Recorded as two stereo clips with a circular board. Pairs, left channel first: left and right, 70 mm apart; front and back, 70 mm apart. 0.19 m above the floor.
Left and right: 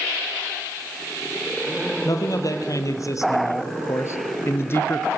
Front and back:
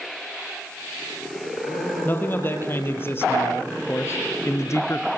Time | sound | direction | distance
2.0 | a man speaking | 60° left | 5 m